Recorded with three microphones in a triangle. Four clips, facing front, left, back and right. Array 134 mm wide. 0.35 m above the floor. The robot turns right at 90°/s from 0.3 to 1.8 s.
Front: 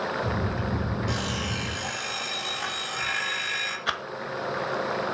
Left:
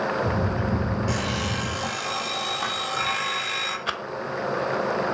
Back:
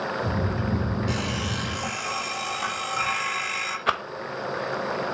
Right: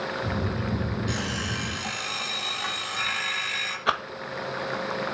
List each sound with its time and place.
1.1 s an alarm clock: 60° left, 5 m; by 3.8 s 125° left, 5 m
3.9 s a rattle: 145° right, 1.2 m